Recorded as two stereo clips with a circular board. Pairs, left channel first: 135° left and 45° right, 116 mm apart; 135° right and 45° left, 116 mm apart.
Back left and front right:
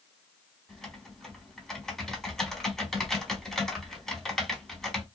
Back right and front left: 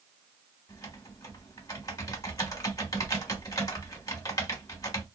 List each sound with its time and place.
0.7 s typing on a keyboard: 145° right, 1.0 m